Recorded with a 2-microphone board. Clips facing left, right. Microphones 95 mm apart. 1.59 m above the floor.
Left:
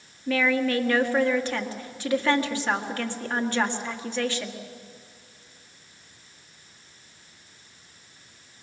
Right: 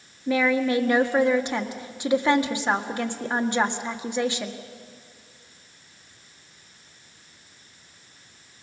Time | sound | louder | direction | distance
0.3 | a woman speaking | right 2 dB | 15° right (ahead or behind) | 1.6 m